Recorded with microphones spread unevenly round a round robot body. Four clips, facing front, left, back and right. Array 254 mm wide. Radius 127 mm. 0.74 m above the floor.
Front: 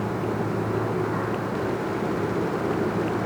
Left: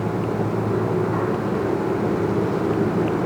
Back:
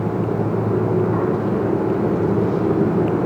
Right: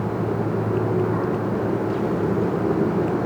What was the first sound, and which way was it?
Only background noise.